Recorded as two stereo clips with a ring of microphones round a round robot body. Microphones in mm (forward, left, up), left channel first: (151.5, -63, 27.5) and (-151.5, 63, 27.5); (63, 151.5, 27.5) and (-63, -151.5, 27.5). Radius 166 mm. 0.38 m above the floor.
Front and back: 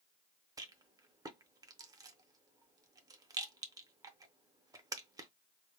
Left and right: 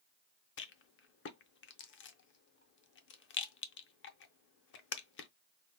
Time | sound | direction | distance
0.6 | a rattle | 85° left | 0.6 m